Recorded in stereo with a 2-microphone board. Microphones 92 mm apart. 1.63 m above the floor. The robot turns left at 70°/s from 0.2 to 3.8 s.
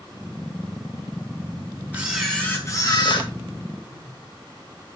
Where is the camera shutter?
160° right, 4.5 m; by 3.3 s 105° left, 4.5 m.